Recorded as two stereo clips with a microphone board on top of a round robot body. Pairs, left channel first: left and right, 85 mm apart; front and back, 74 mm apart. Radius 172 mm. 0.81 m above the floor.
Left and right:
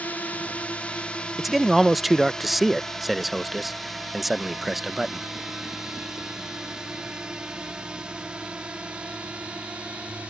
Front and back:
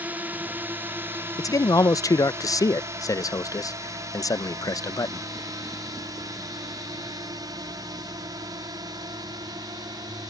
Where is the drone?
140° left; by 10.3 s 165° right.